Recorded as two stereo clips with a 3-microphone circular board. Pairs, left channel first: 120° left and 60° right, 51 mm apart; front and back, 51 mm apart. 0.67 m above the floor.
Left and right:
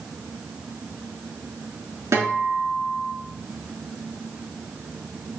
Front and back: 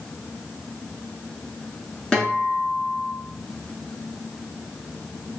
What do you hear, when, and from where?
2.1 s a guitar: 75° right, 5 m